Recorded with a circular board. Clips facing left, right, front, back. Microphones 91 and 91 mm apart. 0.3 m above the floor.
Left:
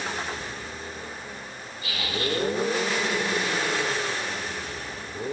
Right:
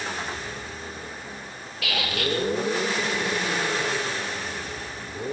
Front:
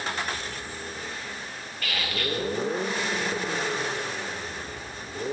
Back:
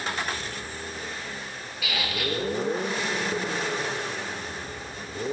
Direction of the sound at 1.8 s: 95° right.